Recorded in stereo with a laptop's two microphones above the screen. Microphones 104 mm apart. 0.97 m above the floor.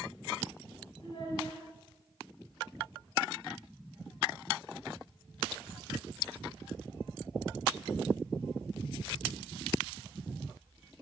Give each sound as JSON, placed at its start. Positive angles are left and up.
{"t": 1.0, "sound": "a child speaking", "side_deg": 55, "distance_m": 5.0}